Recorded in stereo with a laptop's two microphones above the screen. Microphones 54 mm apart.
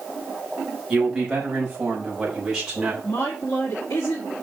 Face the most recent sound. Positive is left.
turn(degrees=70)  # may be behind; listen again after turning